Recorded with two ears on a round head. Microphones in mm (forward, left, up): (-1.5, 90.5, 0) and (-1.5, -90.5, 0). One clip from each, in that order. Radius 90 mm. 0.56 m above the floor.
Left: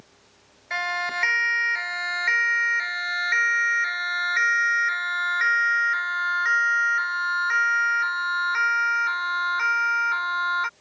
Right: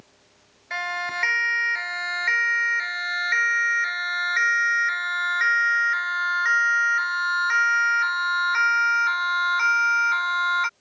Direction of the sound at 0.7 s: 5° left (ahead or behind).